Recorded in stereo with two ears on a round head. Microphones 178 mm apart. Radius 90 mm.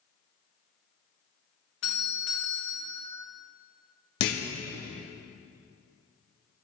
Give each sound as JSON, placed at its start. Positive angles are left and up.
{"t": 1.8, "sound": "a doorbell", "side_deg": 65, "distance_m": 2.0}
{"t": 4.2, "sound": "a clunk", "side_deg": 60, "distance_m": 0.9}